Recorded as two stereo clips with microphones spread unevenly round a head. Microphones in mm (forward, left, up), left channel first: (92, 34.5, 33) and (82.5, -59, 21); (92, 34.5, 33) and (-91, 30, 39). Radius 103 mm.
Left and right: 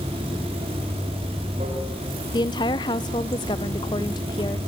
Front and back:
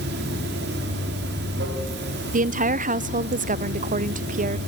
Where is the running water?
140° right, 2.5 m.